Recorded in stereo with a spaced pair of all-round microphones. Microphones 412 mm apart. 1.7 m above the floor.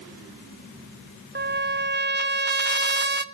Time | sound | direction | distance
1.4 | a trumpet | 25° right (ahead or behind) | 0.9 m